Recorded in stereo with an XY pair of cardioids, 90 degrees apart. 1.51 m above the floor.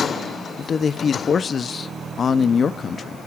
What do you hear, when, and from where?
0.6 s a man speaking: 50° left, 0.6 m